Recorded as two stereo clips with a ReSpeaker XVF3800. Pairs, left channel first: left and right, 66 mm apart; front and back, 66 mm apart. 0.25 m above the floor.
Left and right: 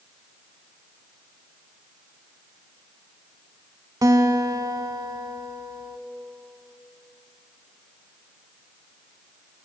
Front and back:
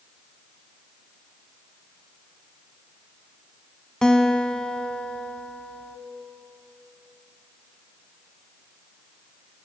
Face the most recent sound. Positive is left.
turn(degrees=-80)